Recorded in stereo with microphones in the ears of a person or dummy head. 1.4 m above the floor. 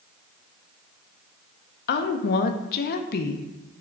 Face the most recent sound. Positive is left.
turn(degrees=50)  # may be behind; listen again after turning